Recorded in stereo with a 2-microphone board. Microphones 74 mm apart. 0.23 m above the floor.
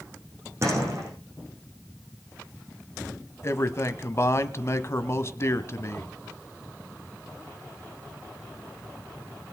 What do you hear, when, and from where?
0.6 s a door slam: 40° right (ahead or behind), 8.5 m
3.4 s a man speaking: 40° left (ahead or behind), 1.3 m